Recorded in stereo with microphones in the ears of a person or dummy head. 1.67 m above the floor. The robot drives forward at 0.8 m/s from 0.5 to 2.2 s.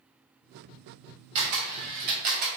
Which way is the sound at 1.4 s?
30° right (ahead or behind).